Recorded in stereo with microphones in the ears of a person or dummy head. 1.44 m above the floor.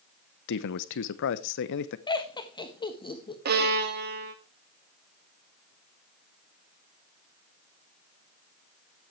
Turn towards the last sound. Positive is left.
turn(degrees=-60)  # may be behind; listen again after turning